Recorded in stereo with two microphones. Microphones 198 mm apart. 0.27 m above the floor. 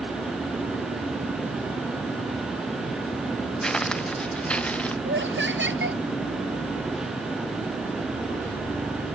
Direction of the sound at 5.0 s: 70° right (ahead or behind).